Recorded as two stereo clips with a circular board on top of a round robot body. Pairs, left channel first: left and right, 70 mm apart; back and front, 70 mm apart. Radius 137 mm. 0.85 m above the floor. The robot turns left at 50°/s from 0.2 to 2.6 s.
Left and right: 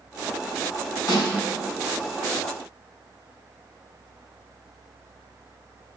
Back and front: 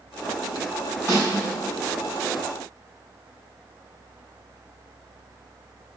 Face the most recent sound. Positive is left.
turn(degrees=50)